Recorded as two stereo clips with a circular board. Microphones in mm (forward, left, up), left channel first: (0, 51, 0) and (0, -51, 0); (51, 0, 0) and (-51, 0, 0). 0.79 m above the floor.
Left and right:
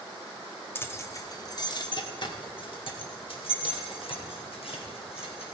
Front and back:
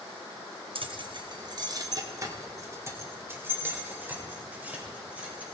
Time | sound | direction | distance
0.8 | keys jangling | 155° left | 0.9 m